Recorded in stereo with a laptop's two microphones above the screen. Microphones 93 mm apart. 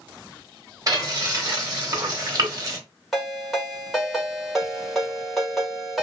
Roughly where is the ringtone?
Centre.